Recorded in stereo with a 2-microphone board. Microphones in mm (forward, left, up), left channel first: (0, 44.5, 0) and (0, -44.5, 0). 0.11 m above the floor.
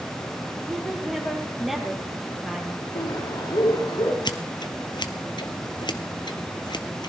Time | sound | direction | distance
0.7 | a woman speaking | centre (ahead or behind) | 2.5 m
3.0 | a bird | 50° left (ahead or behind) | 4 m
4.2 | scissors | 55° left (ahead or behind) | 0.9 m